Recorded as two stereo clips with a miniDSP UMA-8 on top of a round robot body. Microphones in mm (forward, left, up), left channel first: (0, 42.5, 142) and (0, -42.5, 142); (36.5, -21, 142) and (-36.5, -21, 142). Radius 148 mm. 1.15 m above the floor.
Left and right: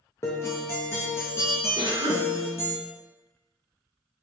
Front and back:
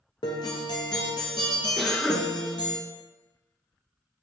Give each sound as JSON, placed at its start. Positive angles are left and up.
{"t": 0.2, "sound": "a guitar", "azimuth_deg": 30, "distance_m": 0.6}
{"t": 1.8, "sound": "a cough", "azimuth_deg": -90, "distance_m": 1.9}